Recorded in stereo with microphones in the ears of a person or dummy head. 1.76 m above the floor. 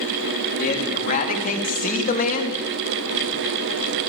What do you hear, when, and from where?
0.6 s a man speaking: 45° left (ahead or behind), 4.5 m; by 2.6 s 40° left (ahead or behind), 2.5 m